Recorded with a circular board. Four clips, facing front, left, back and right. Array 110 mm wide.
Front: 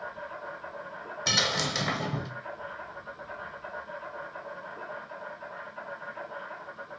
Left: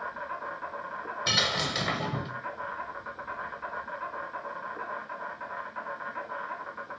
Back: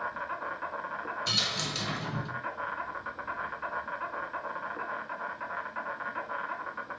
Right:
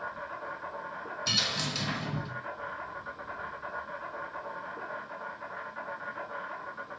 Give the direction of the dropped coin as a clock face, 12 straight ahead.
10 o'clock.